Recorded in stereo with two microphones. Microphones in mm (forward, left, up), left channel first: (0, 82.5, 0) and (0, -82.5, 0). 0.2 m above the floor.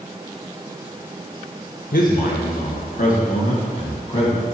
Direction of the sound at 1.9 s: 60° left (ahead or behind).